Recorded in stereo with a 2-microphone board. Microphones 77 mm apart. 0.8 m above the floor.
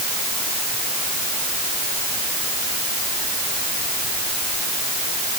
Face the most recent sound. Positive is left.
No sound to turn to.